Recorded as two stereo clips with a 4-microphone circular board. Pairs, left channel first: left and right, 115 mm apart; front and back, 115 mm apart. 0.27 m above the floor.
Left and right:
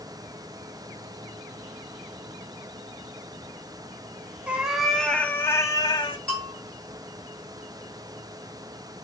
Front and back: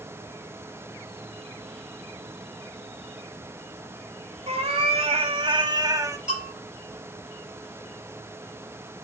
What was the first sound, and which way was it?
A cat meowing, 170° right.